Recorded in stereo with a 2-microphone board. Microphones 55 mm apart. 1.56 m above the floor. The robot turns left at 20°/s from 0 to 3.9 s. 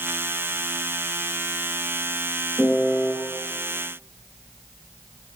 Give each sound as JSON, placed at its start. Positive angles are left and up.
{"t": 2.6, "sound": "a piano", "side_deg": 15, "distance_m": 0.6}